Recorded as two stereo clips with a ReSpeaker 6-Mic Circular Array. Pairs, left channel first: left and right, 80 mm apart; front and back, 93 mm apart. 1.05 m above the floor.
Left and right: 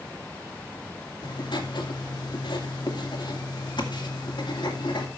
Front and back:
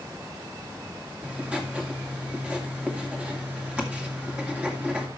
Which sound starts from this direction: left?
Writing, at 1.2 s.